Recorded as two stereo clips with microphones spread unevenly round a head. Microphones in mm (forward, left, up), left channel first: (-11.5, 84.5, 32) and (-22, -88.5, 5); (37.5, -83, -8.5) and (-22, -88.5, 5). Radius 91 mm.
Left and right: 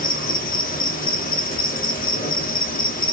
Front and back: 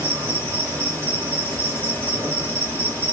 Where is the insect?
120° left, 1.0 m.